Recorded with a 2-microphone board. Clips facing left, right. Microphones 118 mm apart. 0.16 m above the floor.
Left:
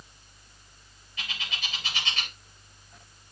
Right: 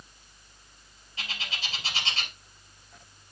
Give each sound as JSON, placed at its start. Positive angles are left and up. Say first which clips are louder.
{"t": 1.2, "sound": "a bird", "louder": "even", "side_deg": -35, "distance_m": 3.0}